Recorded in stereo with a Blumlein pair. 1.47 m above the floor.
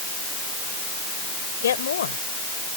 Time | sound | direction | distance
1.6 | a woman speaking | 65° left | ?